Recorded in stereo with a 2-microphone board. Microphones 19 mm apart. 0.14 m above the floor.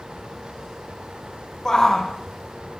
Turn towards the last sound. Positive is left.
turn(degrees=35)  # may be behind; listen again after turning